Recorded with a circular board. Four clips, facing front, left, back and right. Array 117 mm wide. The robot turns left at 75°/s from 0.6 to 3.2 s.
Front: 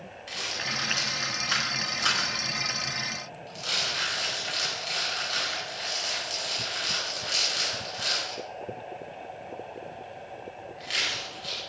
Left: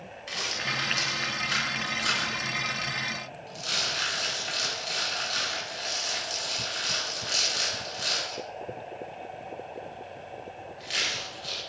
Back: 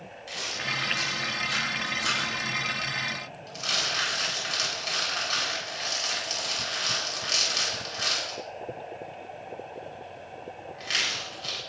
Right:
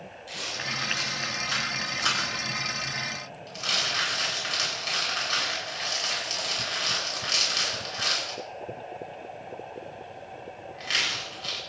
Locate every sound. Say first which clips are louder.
0.3 s a rattle: left 2 dB, back 1 dB; 80° left, 8 m; by 11.6 s 115° right, 8 m